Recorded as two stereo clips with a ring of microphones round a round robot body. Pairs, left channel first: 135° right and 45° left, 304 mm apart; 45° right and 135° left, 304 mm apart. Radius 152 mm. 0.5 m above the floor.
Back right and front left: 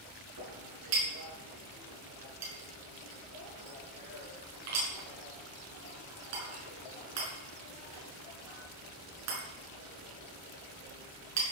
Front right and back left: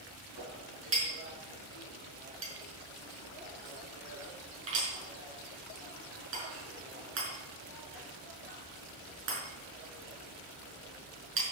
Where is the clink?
85° left, 5 m.